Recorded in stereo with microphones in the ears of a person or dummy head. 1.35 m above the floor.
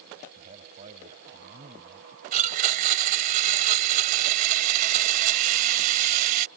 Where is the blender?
50° right (ahead or behind).